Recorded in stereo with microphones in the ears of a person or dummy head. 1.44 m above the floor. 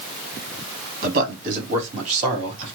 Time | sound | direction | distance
1.0 | a man speaking | 45° right (ahead or behind) | 2.5 m